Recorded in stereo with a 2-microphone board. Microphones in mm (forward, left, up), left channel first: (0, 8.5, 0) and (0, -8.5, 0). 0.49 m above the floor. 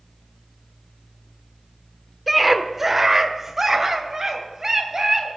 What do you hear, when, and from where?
2.3 s a scream: 10° right (ahead or behind), 0.9 m; by 5.3 s 30° right (ahead or behind), 3 m